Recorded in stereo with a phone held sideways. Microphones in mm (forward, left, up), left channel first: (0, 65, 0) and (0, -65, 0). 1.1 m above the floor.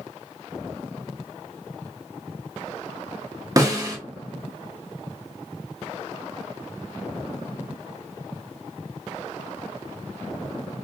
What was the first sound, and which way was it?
A snare drum, 25° right (ahead or behind).